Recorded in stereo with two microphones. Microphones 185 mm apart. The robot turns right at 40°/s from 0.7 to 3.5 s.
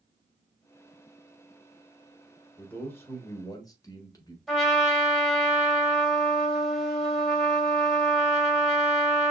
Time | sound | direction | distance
2.6 | a man speaking | 5° left (ahead or behind) | 1.3 m
4.5 | a trumpet | centre (ahead or behind) | 1.4 m